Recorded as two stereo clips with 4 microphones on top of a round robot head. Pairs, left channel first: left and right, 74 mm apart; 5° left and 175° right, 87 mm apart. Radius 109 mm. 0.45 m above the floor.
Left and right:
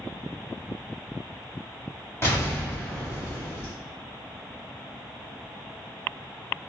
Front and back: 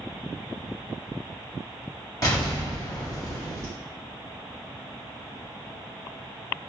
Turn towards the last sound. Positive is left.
turn(degrees=40)